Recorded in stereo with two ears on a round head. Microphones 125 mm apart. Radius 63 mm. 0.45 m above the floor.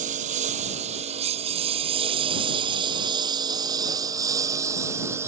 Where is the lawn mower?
55° right (ahead or behind); by 5.3 s 20° right (ahead or behind).